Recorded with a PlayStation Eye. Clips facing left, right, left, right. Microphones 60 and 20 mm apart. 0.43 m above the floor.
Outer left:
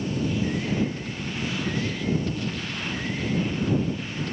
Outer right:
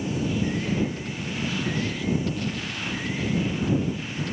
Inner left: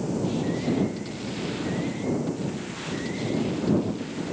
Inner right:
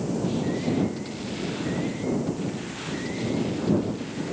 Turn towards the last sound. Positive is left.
No sound to turn to.